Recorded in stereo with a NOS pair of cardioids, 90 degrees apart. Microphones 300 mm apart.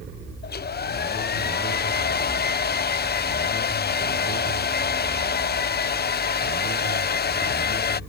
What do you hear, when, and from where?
0.4 s a hair dryer: 35° left